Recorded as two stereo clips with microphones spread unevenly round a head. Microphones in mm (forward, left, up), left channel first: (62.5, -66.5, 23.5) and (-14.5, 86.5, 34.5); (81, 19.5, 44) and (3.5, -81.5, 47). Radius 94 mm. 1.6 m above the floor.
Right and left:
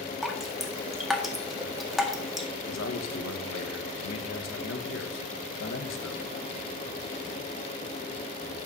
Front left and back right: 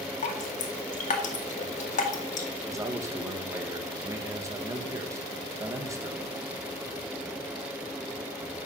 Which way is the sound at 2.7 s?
60° right.